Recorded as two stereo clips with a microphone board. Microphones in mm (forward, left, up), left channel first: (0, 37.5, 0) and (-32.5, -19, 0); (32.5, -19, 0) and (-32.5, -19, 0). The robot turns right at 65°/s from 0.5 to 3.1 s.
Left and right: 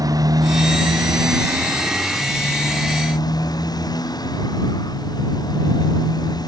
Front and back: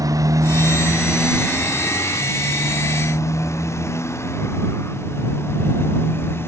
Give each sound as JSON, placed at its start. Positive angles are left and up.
{"t": 0.0, "sound": "a motorcycle", "azimuth_deg": -145}